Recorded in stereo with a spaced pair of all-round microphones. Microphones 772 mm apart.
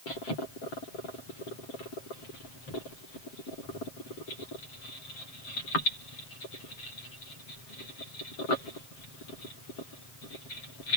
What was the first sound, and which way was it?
Only background noise.